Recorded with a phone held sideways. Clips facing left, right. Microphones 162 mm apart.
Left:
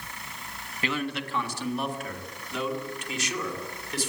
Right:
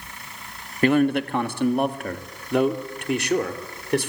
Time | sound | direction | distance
0.8 | a man speaking | 50° right (ahead or behind) | 1.3 m